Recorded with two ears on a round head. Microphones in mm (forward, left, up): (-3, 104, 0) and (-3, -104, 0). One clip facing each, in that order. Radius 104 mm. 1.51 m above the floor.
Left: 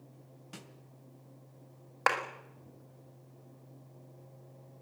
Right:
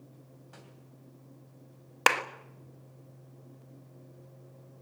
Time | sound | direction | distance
0.5 | a snare drum | 45° left (ahead or behind) | 2.5 m
2.1 | a clap | 45° right (ahead or behind) | 1.5 m